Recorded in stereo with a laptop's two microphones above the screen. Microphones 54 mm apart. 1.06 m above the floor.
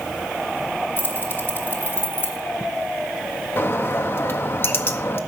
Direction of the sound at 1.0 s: 40° left (ahead or behind).